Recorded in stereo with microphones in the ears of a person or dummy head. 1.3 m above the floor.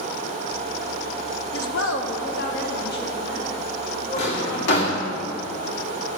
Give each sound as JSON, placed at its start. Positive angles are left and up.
{"t": 1.5, "sound": "a woman speaking", "side_deg": 65, "distance_m": 0.8}
{"t": 4.2, "sound": "a drawer", "side_deg": 55, "distance_m": 1.7}